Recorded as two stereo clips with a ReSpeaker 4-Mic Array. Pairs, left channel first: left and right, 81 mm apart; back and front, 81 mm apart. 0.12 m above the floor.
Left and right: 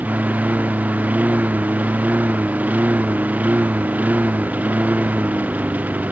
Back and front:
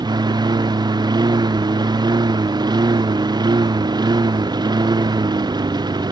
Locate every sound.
0.0 s a lawn mower: 20° right